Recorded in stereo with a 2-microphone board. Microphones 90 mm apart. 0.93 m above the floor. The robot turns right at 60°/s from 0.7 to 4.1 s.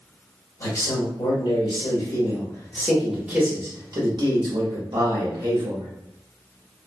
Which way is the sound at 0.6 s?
40° left.